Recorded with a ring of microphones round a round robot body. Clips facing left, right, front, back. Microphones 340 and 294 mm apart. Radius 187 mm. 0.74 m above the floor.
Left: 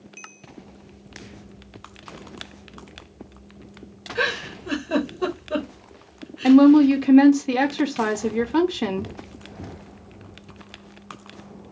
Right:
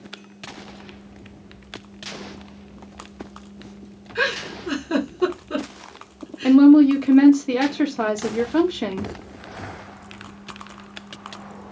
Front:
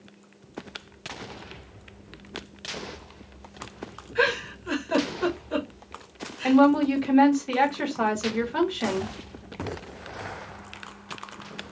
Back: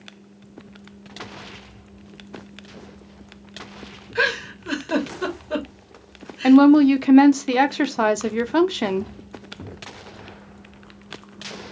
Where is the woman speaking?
170° left, 0.7 m.